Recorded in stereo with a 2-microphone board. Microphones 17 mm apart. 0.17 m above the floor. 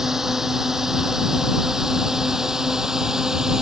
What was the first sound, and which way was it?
A drone, 25° right (ahead or behind).